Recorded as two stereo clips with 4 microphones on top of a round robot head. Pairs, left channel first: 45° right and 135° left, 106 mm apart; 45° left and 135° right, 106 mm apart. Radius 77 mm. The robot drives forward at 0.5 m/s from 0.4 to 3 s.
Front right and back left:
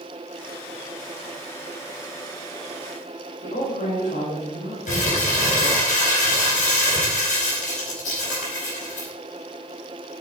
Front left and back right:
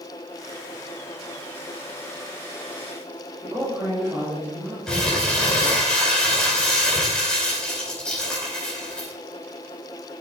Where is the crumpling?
35° right, 4.5 m.